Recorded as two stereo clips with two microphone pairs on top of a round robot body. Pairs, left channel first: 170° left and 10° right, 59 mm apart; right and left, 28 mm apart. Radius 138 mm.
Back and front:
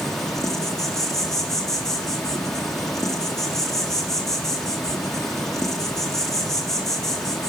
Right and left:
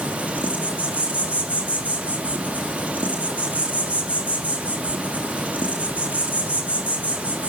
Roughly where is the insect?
Left.